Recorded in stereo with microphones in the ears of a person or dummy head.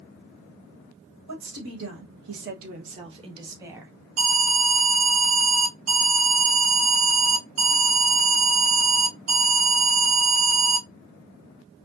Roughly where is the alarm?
Right.